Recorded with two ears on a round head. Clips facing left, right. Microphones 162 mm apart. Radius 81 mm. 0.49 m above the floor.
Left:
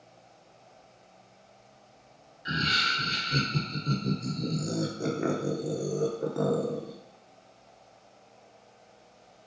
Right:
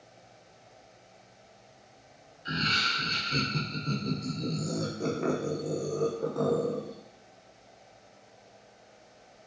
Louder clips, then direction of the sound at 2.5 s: Left 1 dB; 10° left (ahead or behind).